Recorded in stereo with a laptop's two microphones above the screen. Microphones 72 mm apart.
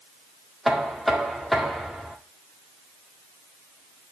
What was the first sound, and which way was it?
Knocking, centre (ahead or behind).